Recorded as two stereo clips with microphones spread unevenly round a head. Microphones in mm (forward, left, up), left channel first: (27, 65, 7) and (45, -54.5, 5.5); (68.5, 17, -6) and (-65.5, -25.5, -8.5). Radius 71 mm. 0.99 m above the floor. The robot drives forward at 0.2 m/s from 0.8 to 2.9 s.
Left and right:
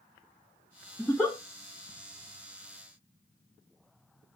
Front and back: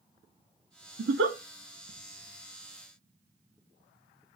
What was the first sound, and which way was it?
A giggle, straight behind.